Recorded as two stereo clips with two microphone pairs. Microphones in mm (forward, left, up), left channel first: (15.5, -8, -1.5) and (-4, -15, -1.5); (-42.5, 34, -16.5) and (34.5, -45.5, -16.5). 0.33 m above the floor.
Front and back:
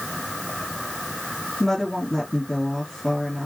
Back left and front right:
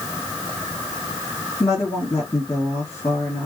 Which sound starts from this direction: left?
A woman speaking, at 1.6 s.